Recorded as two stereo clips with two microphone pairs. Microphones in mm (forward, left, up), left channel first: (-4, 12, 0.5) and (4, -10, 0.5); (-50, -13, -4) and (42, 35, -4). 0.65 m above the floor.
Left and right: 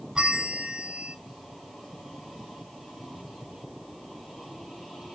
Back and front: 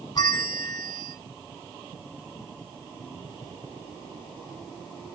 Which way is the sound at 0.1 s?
120° right.